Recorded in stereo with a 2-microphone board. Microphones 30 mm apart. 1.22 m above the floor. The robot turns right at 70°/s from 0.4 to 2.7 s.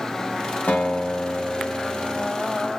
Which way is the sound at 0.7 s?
70° left.